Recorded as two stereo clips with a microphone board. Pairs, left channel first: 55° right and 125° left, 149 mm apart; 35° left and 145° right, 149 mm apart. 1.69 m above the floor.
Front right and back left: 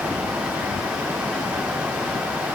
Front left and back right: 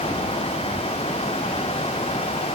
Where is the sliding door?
No sliding door in this recording.